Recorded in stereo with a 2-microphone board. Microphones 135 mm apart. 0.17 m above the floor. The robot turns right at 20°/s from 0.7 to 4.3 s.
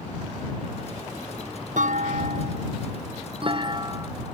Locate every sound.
1.8 s a clunk: 75° right; by 4.1 s 30° right